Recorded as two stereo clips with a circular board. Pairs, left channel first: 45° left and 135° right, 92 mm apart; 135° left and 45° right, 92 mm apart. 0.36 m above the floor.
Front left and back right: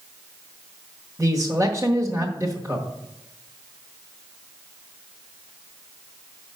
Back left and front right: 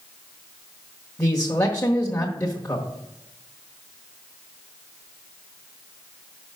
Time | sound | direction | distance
1.2 | a man speaking | 170° right | 1.3 m